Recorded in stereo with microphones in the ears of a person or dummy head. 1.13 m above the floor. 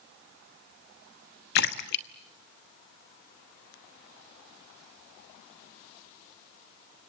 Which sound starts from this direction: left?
A splash, at 1.6 s.